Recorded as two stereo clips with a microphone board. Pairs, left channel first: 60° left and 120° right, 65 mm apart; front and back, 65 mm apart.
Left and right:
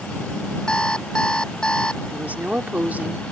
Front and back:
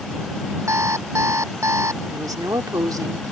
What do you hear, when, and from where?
0.7 s an alarm clock: 140° left
2.1 s a woman speaking: 175° left